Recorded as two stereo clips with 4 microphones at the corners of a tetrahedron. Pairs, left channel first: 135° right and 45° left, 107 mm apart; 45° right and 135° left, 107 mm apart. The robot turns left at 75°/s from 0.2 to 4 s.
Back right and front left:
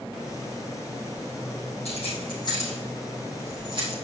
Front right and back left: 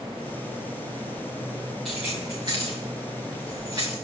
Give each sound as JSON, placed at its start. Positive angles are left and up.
{"t": 1.9, "sound": "keys jangling", "azimuth_deg": -135, "distance_m": 4.5}